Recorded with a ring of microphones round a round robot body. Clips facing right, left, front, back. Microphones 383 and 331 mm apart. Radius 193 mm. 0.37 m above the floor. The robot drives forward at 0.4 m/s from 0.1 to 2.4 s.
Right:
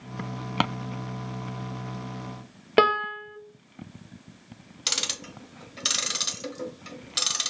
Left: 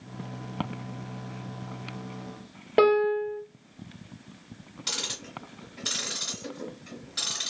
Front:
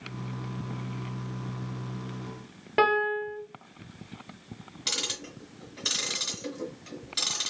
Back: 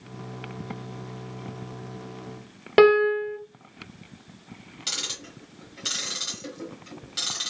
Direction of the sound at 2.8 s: 145° right.